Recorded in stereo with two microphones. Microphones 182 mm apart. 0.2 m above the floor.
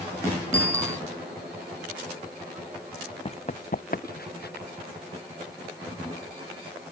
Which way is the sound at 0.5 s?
15° right (ahead or behind).